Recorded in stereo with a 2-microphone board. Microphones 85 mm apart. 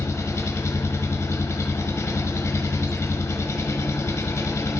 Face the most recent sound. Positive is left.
turn(degrees=35)  # may be behind; listen again after turning